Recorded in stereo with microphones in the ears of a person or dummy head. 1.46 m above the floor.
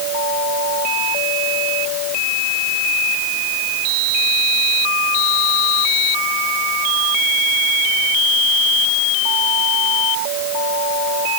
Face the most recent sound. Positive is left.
No sound to turn to.